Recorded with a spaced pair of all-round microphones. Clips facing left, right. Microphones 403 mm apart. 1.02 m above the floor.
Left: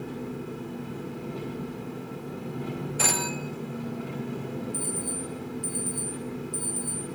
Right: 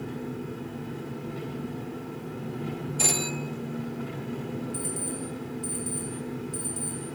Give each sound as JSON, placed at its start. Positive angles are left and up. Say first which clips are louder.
{"t": 0.0, "sound": "an engine running", "louder": "even", "side_deg": -30, "distance_m": 7.5}
{"t": 3.0, "sound": "a phone ringing", "louder": "right 2 dB", "side_deg": 70, "distance_m": 1.1}
{"t": 4.7, "sound": "an alarm clock", "louder": "even", "side_deg": -80, "distance_m": 5.5}